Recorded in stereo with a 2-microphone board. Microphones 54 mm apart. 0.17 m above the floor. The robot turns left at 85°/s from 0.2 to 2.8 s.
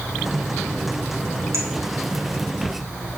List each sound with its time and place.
1.5 s a clink: 75° right (ahead or behind), 3 m; by 1.7 s 65° right (ahead or behind), 3 m